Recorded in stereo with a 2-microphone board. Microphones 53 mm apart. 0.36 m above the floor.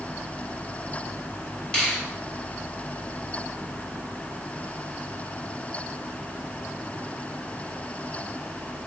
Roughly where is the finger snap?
Left.